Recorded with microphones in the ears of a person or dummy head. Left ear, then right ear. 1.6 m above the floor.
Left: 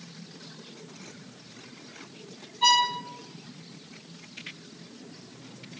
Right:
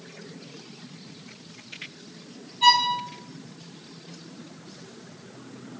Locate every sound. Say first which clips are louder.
2.6 s a violin: right 3 dB; 5° right (ahead or behind), 0.9 m